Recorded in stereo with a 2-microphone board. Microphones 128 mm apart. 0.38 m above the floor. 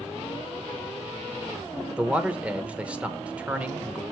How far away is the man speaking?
About 0.8 m.